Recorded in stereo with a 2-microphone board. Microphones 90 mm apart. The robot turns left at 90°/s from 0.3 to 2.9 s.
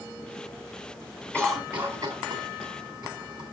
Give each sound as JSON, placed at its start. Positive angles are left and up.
{"t": 1.3, "sound": "a cough", "side_deg": 15, "distance_m": 3.5}